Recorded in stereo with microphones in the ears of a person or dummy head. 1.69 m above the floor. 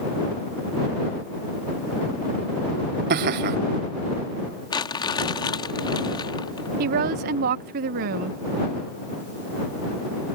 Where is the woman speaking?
45° right (ahead or behind).